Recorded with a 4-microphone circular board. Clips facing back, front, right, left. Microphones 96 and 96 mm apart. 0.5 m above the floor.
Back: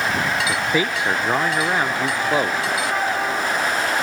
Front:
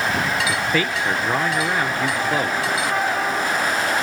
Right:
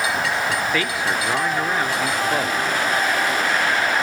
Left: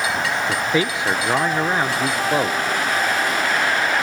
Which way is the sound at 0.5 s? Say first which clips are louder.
Back 1 dB, left 2 dB; 130° left.